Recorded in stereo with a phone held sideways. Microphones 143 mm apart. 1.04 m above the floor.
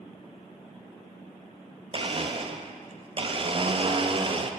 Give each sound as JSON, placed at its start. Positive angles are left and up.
{"t": 1.9, "sound": "a blender", "side_deg": -40, "distance_m": 0.5}